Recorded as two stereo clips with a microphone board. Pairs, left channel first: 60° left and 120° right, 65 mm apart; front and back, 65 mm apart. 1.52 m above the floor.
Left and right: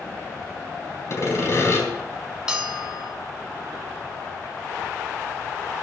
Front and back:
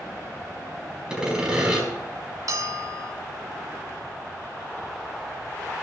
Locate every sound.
1.1 s sawing: 105° left, 4.5 m
2.5 s a bell: 165° left, 2 m